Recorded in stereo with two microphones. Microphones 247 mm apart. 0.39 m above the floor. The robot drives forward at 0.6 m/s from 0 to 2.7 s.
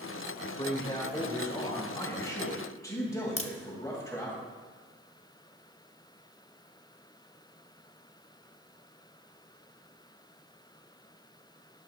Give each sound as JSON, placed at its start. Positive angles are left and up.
{"t": 0.6, "sound": "a man speaking", "side_deg": 20, "distance_m": 1.4}
{"t": 3.4, "sound": "a crack", "side_deg": 55, "distance_m": 0.8}